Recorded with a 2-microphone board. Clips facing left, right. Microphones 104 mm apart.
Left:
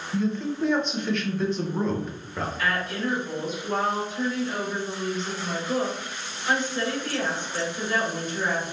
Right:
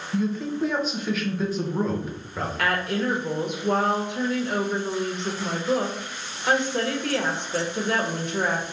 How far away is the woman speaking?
About 0.9 m.